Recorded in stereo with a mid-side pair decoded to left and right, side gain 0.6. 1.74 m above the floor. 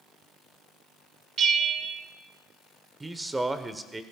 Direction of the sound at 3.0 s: 15° right.